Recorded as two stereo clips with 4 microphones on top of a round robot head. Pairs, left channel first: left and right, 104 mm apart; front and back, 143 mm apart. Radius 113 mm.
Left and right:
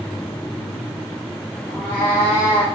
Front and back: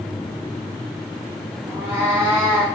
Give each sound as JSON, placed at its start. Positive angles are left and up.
{"t": 1.7, "sound": "a cat meowing", "azimuth_deg": 110, "distance_m": 1.4}